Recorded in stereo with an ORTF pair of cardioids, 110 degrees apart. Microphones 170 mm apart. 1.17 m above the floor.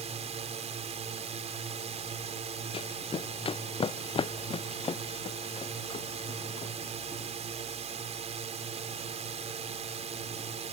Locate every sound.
0.0 s a drone: 40° right
2.7 s running footsteps: 30° left